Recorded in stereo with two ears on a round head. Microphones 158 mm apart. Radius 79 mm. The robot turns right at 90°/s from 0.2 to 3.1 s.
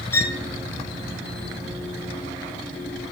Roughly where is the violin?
Centre.